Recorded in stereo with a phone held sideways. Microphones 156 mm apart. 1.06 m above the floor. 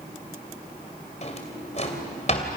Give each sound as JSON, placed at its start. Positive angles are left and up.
{"t": 1.2, "sound": "a drawer", "side_deg": 45, "distance_m": 3.0}